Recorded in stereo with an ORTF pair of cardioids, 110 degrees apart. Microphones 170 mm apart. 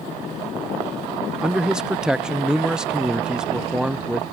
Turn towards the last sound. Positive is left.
turn(degrees=-5)